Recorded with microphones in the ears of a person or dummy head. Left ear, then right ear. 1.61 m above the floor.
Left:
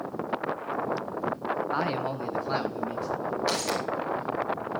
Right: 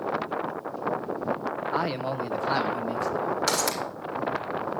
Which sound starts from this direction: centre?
A man speaking, at 1.7 s.